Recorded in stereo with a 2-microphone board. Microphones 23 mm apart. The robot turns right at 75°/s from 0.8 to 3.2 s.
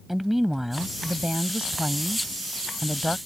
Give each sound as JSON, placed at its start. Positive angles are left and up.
{"t": 0.1, "sound": "a woman speaking", "azimuth_deg": -165}